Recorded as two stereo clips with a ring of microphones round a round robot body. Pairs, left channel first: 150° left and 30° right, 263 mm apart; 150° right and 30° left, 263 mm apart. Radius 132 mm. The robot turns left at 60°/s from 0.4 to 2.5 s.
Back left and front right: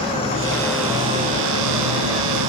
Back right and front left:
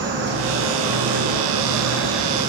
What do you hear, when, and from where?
0.0 s an insect: 80° left, 6 m; by 2.5 s 45° right, 6 m